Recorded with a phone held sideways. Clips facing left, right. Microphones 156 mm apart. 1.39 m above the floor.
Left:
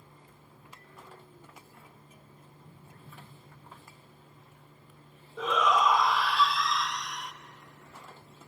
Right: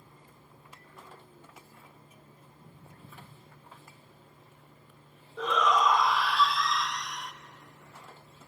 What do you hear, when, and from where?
2.5 s footsteps: 70° right (ahead or behind), 7 m
5.4 s a shout: 5° left (ahead or behind), 0.8 m